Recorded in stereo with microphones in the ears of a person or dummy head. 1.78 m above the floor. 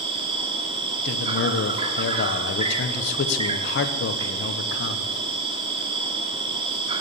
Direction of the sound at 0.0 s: 30° right (ahead or behind).